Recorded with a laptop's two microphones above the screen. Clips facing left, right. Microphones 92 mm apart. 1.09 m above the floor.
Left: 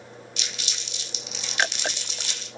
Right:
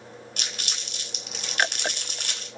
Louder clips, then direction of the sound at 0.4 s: Right 1 dB; 50° right (ahead or behind).